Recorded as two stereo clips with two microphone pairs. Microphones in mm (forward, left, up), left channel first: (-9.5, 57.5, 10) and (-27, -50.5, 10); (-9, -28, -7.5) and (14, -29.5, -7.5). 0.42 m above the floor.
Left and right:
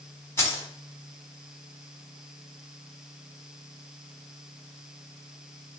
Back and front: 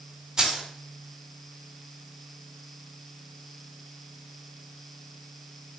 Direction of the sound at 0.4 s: 35° left.